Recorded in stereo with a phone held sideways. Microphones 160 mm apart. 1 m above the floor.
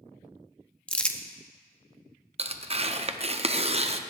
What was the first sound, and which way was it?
Crumpling, 5° left (ahead or behind).